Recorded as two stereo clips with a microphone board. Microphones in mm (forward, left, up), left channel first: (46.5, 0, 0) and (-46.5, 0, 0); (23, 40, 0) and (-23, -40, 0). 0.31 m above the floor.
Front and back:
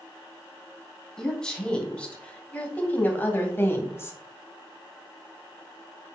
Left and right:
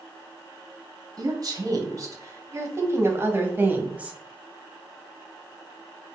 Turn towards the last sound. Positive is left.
turn(degrees=-50)